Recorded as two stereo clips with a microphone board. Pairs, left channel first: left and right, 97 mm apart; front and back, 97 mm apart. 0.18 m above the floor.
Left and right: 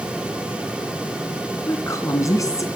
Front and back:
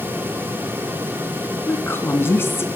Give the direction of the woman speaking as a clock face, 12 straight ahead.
10 o'clock.